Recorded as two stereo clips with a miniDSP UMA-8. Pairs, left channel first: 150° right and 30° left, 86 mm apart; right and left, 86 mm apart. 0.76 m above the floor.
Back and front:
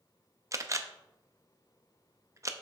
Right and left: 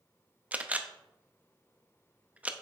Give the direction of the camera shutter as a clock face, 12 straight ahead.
11 o'clock.